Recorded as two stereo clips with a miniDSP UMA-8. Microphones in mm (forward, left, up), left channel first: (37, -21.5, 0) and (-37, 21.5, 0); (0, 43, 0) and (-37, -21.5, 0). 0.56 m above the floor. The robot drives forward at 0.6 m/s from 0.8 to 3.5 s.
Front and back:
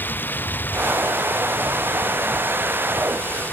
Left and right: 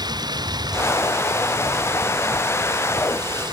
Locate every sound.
0.0 s running water: 100° right